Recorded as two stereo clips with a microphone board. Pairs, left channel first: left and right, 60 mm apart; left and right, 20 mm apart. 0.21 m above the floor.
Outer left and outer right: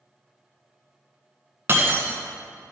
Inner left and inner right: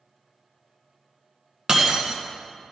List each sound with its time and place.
1.7 s breaking glass: 40° right (ahead or behind), 1.5 m